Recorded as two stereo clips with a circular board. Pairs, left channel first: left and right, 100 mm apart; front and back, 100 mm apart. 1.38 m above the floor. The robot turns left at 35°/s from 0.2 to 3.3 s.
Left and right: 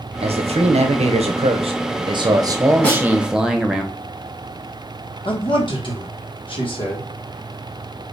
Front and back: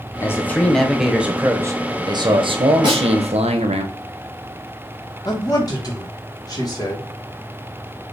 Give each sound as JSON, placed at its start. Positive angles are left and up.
{"t": 0.2, "sound": "a man speaking", "azimuth_deg": -65, "distance_m": 0.6}
{"t": 2.8, "sound": "a snare drum", "azimuth_deg": 160, "distance_m": 1.9}
{"t": 5.2, "sound": "a man speaking", "azimuth_deg": 55, "distance_m": 1.4}